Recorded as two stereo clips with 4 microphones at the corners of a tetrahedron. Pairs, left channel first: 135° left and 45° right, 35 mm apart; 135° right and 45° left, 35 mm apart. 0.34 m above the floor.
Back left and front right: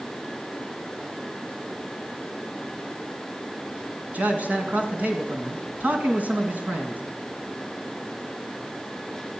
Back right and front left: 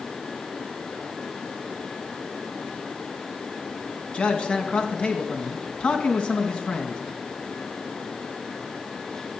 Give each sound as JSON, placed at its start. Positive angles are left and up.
{"t": 4.1, "sound": "a man speaking", "azimuth_deg": -80, "distance_m": 2.5}